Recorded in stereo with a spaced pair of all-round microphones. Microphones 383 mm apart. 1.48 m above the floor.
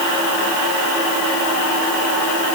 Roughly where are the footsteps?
I don't hear footsteps.